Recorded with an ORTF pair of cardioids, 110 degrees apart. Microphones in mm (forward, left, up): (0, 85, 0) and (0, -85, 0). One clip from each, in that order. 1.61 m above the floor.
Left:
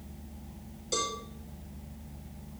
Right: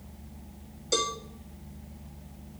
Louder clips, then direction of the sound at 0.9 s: Right 4 dB; 30° right.